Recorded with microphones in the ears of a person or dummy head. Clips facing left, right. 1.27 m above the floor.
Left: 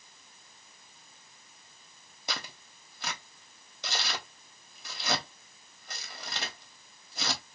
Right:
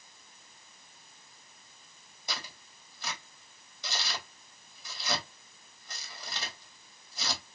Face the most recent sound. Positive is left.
turn(degrees=60)  # may be behind; listen again after turning